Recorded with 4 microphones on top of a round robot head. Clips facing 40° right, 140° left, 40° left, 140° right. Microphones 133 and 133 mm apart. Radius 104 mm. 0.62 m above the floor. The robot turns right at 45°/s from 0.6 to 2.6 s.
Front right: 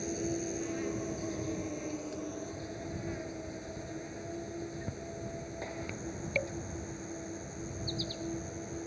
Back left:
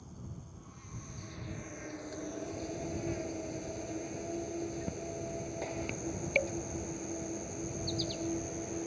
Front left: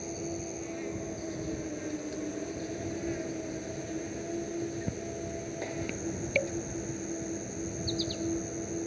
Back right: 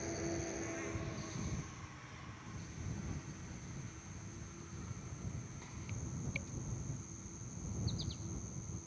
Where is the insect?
30° right; by 8.9 s 60° left.